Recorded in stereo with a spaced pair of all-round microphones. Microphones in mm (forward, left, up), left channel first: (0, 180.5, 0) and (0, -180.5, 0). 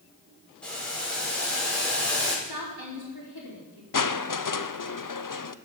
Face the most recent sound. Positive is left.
turn(degrees=60)  # may be behind; listen again after turning